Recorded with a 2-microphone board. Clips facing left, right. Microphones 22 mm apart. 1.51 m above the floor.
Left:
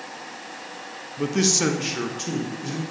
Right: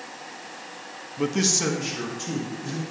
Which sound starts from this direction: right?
A man speaking, at 1.2 s.